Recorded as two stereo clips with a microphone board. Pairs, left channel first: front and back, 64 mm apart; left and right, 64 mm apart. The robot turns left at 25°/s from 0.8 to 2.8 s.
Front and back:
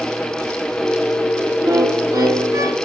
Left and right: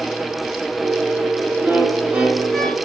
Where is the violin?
160° right, 5 m; by 2.8 s 175° left, 5 m.